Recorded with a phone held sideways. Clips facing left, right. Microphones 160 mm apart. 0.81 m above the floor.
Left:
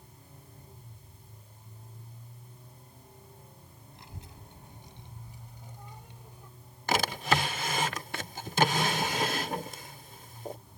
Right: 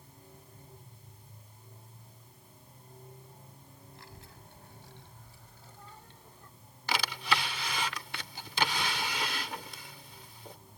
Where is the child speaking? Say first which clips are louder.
Left 5 dB; 20° left (ahead or behind); by 6.5 s 15° left (ahead or behind).